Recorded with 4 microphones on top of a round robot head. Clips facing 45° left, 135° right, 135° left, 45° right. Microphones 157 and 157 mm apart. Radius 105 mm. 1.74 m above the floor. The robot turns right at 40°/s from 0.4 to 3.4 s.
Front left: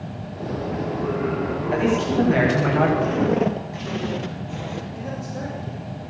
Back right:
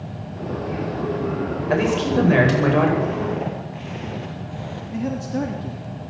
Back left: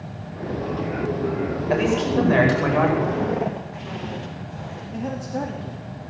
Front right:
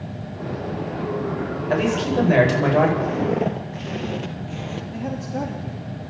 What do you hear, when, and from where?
1.7 s a man speaking: 145° right, 10 m; by 2.9 s 95° right, 10 m
3.0 s footsteps: 15° left, 2 m; by 4.8 s 30° right, 2.5 m
4.9 s a man speaking: 130° right, 3 m